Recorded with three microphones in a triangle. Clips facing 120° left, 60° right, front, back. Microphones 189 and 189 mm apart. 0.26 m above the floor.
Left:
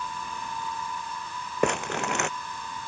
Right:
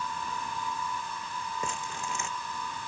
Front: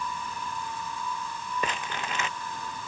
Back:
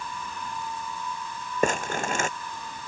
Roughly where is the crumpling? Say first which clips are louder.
Left 11 dB, back 11 dB; behind left.